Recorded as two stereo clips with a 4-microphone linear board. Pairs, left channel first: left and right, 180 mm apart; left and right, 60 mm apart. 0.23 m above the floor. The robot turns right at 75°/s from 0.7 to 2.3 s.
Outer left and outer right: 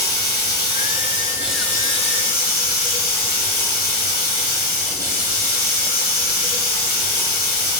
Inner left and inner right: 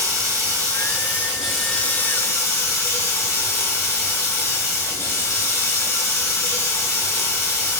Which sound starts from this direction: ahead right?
Running water, at 0.0 s.